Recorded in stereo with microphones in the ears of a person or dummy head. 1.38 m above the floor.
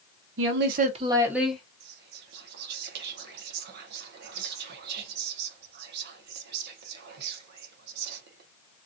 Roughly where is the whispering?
Right.